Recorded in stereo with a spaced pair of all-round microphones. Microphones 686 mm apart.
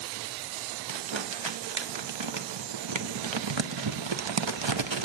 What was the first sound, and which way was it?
Crumpling, 45° right (ahead or behind).